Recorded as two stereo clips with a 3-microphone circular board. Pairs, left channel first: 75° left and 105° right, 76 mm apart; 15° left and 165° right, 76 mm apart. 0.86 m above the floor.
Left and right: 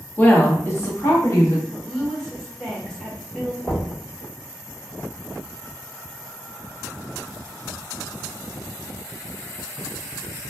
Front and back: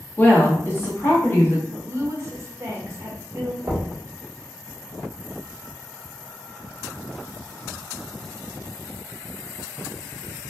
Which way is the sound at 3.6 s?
125° left.